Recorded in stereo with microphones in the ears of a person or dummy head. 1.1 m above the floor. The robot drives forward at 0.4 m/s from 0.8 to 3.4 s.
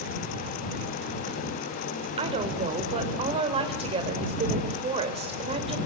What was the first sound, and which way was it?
A woman speaking, 35° right (ahead or behind).